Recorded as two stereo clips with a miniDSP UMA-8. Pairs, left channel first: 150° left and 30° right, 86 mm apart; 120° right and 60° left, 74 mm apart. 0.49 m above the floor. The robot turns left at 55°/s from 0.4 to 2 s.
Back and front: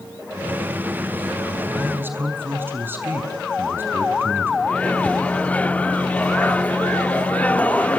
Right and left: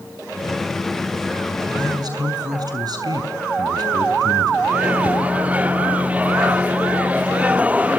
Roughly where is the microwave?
Left.